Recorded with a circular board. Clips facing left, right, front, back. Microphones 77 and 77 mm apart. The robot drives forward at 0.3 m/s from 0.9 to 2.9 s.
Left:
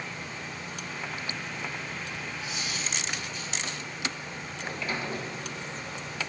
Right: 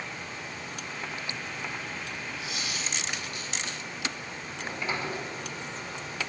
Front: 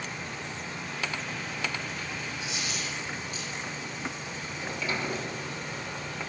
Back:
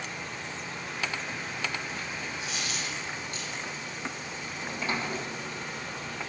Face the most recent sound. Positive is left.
turn(degrees=-145)